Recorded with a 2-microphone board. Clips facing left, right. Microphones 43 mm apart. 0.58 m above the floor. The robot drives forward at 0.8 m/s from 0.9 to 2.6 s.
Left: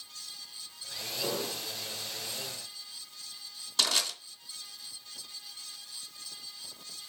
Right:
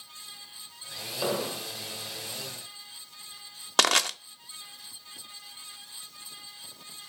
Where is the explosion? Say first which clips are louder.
Right 5 dB; 55° right (ahead or behind), 1.1 m; by 1.7 s 75° right (ahead or behind), 0.9 m.